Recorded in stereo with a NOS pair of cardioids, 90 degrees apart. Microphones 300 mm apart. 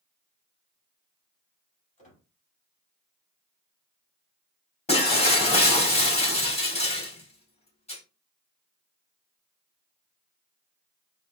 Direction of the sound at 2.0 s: 25° left.